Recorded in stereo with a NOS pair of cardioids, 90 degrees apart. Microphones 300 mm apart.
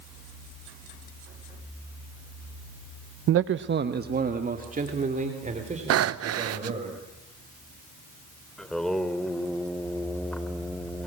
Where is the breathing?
60° right, 1.0 m.